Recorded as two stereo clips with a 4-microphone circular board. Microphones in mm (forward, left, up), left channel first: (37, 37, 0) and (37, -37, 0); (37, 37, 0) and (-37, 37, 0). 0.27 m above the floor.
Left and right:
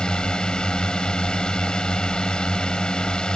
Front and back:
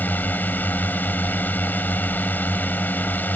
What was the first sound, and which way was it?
A drone, 25° left.